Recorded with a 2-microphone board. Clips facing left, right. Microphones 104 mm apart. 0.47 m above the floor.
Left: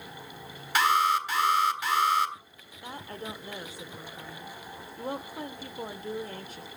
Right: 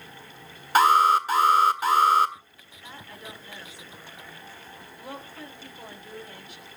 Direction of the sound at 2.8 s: 45° left (ahead or behind).